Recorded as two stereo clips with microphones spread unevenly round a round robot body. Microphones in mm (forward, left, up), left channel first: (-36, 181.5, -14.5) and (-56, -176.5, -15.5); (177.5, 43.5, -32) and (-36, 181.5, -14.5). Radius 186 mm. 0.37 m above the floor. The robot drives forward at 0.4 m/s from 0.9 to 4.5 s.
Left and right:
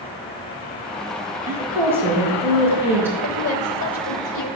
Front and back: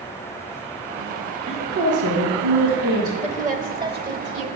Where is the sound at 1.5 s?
175° right, 3.5 m.